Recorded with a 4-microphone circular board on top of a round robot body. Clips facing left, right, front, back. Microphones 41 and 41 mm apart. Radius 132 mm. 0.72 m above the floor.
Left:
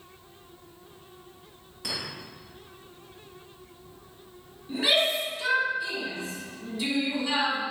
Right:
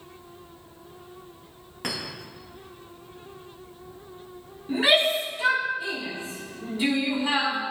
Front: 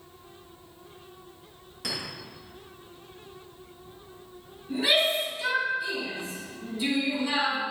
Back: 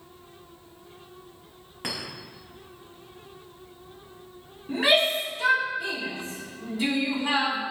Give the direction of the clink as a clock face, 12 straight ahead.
4 o'clock.